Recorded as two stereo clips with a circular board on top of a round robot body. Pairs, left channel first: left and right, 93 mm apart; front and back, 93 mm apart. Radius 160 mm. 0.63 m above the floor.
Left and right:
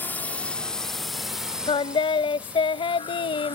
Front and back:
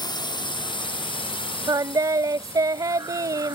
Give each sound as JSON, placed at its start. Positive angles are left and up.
{"t": 0.0, "sound": "a drone", "azimuth_deg": 25}
{"t": 1.7, "sound": "singing", "azimuth_deg": 125}